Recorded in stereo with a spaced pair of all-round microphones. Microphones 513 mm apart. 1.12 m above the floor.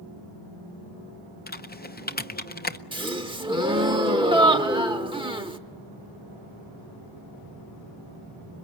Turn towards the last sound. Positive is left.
turn(degrees=-10)  # may be behind; listen again after turning